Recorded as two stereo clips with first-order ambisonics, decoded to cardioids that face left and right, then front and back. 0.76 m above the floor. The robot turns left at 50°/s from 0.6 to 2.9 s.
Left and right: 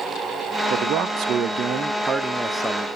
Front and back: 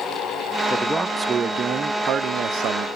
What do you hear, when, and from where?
0.7 s a man speaking: 85° right, 0.6 m; by 2.9 s 165° left, 0.6 m